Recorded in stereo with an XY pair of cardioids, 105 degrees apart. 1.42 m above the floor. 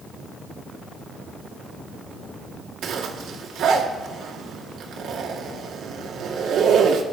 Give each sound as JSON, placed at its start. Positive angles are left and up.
{"t": 2.8, "sound": "a zipper", "azimuth_deg": -65, "distance_m": 2.5}